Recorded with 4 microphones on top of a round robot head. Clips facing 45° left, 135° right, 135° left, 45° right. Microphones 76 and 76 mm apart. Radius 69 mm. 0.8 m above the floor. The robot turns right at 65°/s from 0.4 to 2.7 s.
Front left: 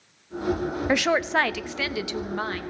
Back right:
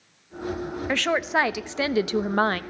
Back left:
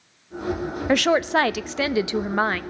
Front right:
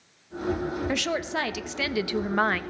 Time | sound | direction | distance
0.9 | a woman speaking | 115° left | 0.5 m